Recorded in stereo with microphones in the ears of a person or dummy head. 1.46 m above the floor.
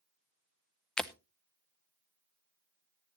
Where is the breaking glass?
5° left (ahead or behind), 0.5 m.